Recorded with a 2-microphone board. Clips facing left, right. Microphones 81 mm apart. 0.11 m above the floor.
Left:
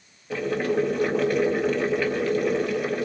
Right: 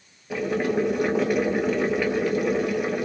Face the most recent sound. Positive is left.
turn(degrees=-10)  # may be behind; listen again after turning